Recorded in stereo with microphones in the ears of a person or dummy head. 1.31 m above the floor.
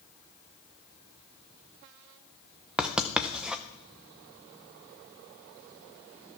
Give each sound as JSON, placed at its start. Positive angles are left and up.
{"t": 2.8, "sound": "writing", "side_deg": -5, "distance_m": 0.6}